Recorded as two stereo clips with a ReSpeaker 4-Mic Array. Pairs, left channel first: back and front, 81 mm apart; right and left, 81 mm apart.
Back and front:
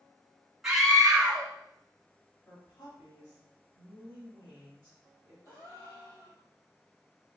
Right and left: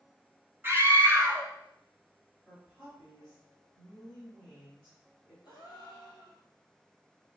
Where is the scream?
80° left, 1.1 m.